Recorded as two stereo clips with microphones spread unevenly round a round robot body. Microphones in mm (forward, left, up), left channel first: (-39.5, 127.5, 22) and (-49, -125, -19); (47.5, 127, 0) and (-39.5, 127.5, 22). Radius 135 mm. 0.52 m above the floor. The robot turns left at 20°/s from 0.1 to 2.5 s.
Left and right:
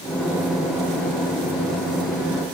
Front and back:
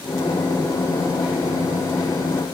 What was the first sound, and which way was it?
Only background noise.